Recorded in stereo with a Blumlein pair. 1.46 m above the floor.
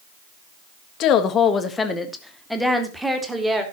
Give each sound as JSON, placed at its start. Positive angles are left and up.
{"t": 1.0, "sound": "a woman speaking", "azimuth_deg": 35, "distance_m": 1.6}